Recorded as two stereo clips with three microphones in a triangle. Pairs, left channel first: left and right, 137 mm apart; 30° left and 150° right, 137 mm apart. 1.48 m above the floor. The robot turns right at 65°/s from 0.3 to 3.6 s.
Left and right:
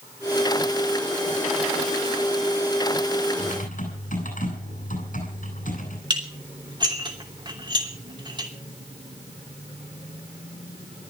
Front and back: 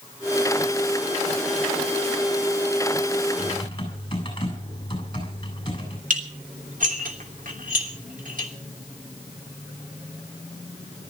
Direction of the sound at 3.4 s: 70° left.